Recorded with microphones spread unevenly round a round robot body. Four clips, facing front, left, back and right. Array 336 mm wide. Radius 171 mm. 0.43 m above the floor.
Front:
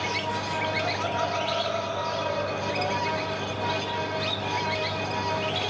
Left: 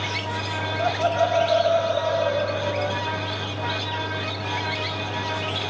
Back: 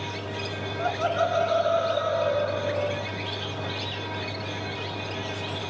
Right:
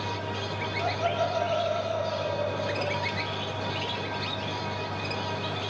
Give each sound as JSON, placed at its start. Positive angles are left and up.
{"t": 0.8, "sound": "laughter", "azimuth_deg": 125, "distance_m": 3.0}